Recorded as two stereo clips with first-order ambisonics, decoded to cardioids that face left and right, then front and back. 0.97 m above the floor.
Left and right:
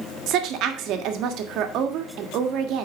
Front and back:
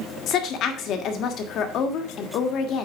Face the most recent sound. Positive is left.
turn(degrees=-50)